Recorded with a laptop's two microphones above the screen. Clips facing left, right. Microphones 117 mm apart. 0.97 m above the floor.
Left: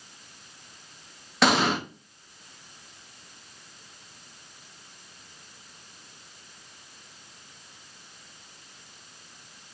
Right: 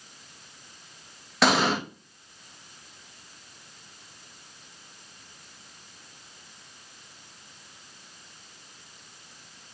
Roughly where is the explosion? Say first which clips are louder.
Even; centre.